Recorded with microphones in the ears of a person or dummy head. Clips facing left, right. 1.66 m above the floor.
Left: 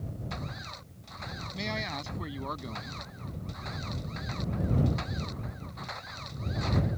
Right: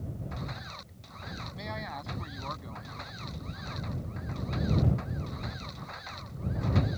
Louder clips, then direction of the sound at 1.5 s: Left 5 dB; 45° left (ahead or behind).